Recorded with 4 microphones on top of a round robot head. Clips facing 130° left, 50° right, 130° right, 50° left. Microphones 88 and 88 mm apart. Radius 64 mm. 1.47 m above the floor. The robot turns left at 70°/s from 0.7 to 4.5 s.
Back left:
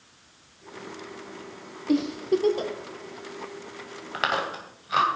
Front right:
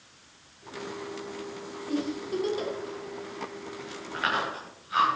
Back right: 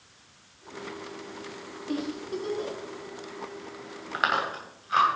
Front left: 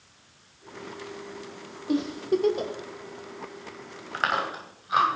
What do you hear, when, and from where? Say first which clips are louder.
1.9 s a giggle: back left 7 dB, front left 7 dB; 120° left, 1.3 m; by 2.7 s 65° left, 1.3 m
4.1 s chewing: back left 2 dB, even; 155° left, 2 m; by 5.1 s 130° left, 2 m